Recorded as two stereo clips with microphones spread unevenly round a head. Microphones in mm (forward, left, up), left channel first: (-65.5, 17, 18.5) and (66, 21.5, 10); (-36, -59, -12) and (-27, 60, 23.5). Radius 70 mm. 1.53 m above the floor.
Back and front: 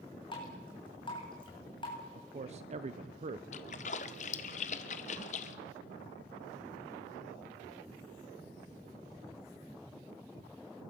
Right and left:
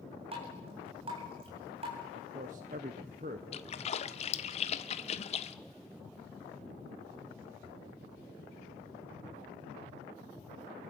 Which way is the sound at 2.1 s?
40° left.